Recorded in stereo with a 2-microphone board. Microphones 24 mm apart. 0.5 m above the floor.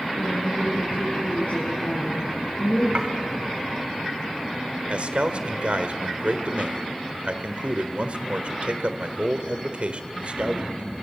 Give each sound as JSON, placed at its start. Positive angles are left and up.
{"t": 0.2, "sound": "a woman speaking", "side_deg": 75, "distance_m": 8.0}
{"t": 3.0, "sound": "dishes clattering", "side_deg": -40, "distance_m": 2.0}
{"t": 4.9, "sound": "a man speaking", "side_deg": -55, "distance_m": 1.9}